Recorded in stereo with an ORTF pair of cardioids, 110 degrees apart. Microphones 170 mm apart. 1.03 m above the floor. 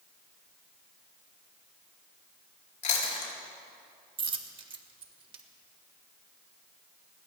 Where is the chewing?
45° left, 4.5 m.